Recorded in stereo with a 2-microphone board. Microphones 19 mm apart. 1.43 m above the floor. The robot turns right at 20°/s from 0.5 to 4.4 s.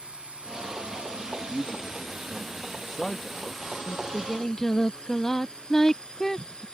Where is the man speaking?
120° left; by 3.7 s 165° left.